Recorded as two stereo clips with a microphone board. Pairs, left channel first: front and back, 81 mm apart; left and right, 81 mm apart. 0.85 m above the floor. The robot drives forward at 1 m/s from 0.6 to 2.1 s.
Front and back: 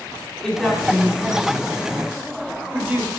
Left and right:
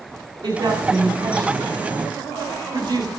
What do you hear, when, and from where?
0.4 s a woman speaking: 85° right, 3.5 m; by 3.1 s 110° right, 3.5 m